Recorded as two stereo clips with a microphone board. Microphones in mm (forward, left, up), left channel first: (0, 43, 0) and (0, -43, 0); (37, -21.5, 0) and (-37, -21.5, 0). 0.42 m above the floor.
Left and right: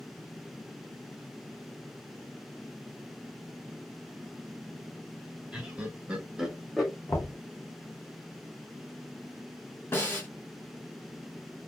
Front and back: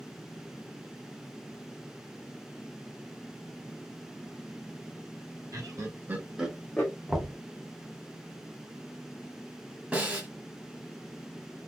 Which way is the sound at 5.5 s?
165° right.